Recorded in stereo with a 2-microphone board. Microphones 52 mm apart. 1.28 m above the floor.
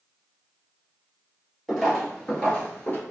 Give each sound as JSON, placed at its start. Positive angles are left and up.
{"t": 1.7, "sound": "footsteps", "side_deg": 0, "distance_m": 1.5}